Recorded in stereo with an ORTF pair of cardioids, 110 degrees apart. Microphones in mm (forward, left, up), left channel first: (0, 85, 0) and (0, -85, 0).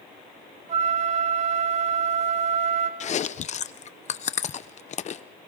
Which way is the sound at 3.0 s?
40° left.